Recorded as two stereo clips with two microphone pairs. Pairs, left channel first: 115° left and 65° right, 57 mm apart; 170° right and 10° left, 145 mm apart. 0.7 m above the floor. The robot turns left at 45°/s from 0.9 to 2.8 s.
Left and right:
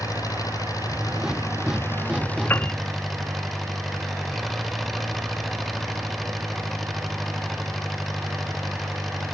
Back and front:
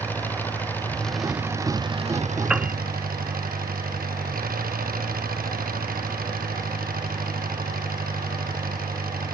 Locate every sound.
0.0 s an engine running: 110° left; by 9.3 s 25° left
2.5 s a piano: 90° left; by 2.7 s 80° left